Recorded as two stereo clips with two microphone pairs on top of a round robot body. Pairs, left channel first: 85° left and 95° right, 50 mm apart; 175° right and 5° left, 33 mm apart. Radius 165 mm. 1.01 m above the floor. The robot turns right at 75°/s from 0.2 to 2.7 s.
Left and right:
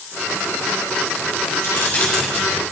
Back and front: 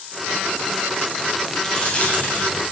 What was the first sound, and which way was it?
Keys jangling, 125° left.